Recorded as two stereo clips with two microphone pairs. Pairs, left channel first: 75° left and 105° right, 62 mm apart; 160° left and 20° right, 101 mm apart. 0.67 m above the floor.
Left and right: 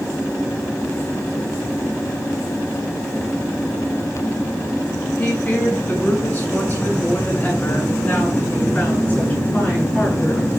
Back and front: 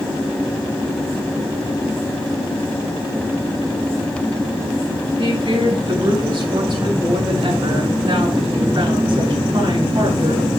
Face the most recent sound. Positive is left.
turn(degrees=15)